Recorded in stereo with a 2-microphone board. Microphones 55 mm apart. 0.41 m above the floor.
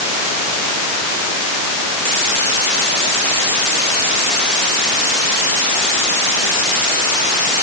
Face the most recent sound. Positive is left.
No sound to turn to.